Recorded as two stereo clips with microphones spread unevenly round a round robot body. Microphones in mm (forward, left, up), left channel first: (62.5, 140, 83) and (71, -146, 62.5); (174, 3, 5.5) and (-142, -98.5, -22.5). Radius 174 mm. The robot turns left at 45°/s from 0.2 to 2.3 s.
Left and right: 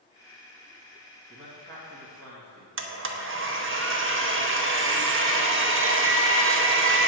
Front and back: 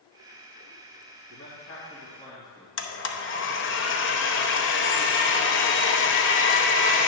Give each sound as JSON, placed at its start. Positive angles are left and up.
{"t": 1.3, "sound": "a man speaking", "azimuth_deg": -20, "distance_m": 1.8}
{"t": 2.8, "sound": "a blender", "azimuth_deg": -40, "distance_m": 0.8}